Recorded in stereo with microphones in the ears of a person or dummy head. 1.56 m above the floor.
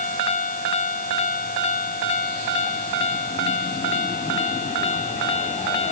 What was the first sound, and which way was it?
Only background noise.